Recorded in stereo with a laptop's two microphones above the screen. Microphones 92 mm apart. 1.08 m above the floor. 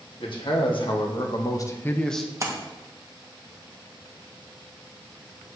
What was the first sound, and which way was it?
A man speaking, 70° left (ahead or behind).